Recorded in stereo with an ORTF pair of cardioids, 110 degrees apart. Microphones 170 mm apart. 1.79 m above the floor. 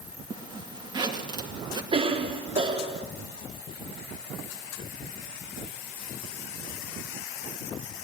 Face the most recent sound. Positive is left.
turn(degrees=-35)